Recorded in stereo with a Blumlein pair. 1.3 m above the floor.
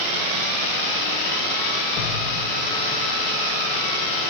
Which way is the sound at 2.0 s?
35° left.